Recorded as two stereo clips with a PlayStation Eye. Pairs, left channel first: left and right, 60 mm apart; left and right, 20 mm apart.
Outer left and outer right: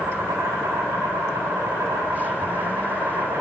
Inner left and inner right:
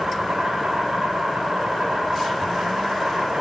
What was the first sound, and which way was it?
An insect, 80° right.